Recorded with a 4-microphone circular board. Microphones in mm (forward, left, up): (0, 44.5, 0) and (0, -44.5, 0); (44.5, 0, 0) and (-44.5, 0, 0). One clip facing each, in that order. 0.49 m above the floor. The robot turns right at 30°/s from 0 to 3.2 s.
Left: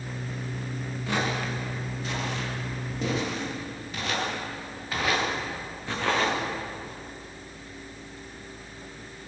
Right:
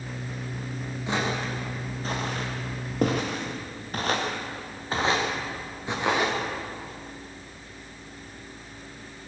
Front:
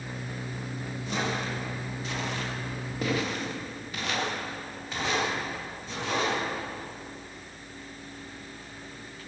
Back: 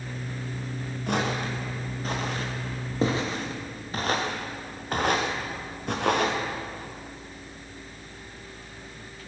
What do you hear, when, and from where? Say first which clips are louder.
1.1 s footsteps: even, back 4 dB; 160° right, 6.5 m; by 6.4 s 165° right, 6 m